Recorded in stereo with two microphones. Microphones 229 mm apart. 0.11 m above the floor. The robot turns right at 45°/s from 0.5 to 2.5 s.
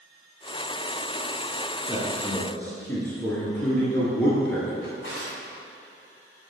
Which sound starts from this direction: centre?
A man speaking, at 1.9 s.